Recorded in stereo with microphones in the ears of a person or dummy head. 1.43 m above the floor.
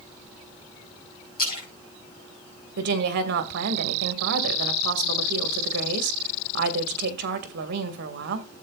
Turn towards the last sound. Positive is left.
turn(degrees=-65)  # may be behind; listen again after turning